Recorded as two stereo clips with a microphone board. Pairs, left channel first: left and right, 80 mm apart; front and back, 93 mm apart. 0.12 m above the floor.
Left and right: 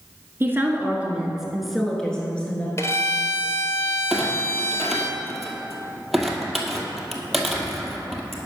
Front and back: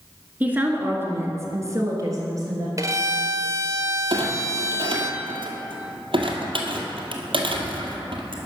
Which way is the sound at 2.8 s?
135° left.